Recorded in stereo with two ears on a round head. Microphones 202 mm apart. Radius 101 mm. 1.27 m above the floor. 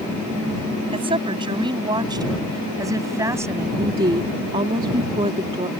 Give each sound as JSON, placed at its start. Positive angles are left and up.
{"t": 0.9, "sound": "a woman speaking", "side_deg": -25}
{"t": 3.8, "sound": "a woman speaking", "side_deg": -25}